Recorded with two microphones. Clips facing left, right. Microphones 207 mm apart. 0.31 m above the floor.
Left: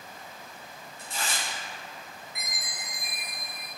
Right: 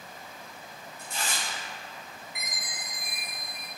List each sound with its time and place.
1.0 s tearing paper: 35° left (ahead or behind), 1.9 m
2.4 s a chime: 25° left (ahead or behind), 1.6 m